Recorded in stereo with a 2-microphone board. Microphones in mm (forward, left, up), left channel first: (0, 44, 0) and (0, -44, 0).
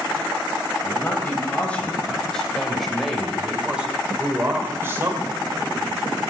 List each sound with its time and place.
0.8 s a man speaking: 20° left (ahead or behind), 3.5 m; by 5.9 s 40° right (ahead or behind), 2.5 m